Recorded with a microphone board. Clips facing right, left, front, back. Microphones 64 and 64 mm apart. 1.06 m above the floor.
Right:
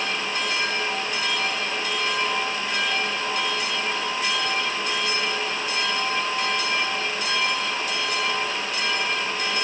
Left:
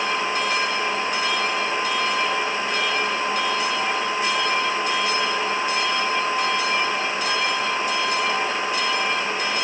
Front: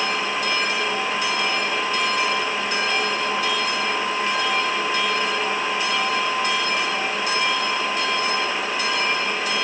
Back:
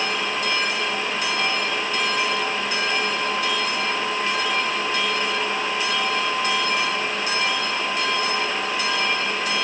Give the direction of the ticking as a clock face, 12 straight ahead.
I don't hear ticking.